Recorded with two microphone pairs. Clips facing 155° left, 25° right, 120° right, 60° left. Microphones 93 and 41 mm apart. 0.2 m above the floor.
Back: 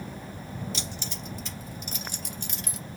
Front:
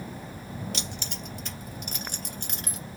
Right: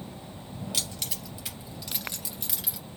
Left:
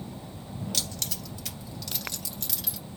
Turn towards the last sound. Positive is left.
turn(degrees=-50)